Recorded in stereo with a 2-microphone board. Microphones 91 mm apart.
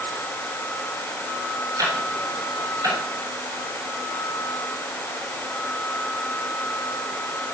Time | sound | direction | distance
1.8 | ticking | 40° right (ahead or behind) | 6 m